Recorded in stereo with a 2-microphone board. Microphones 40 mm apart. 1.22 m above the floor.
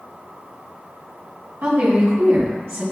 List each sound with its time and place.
1.6 s a woman speaking: 75° right (ahead or behind), 1.5 m